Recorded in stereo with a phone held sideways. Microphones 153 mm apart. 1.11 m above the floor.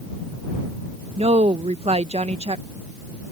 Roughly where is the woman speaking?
Right.